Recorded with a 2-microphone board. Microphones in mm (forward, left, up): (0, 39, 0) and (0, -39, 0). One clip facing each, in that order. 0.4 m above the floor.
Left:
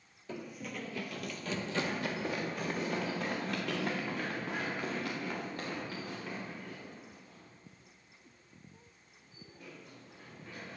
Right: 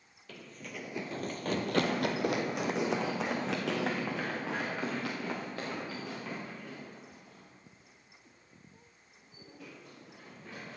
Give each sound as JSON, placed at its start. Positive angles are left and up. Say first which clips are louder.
{"t": 0.3, "sound": "running footsteps", "louder": "left 4 dB", "side_deg": 20, "distance_m": 0.7}